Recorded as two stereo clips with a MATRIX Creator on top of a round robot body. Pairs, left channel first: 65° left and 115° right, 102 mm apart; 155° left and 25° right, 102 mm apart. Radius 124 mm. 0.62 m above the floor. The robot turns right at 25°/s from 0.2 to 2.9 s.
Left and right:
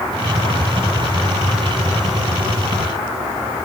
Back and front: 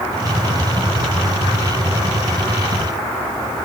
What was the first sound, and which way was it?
Only background noise.